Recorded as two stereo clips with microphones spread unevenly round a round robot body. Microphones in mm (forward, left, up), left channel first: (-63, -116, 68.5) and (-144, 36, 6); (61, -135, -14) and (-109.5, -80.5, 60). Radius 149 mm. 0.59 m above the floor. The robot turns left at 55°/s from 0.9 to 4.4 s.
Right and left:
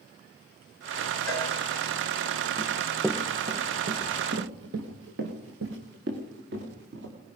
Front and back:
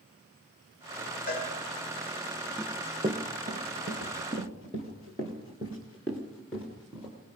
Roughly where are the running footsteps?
Behind right.